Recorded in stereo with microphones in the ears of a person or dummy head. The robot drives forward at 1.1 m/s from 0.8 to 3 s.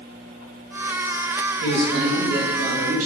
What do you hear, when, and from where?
1.6 s a man speaking: 70° right (ahead or behind), 1.9 m; by 3.1 s 45° right (ahead or behind), 2.5 m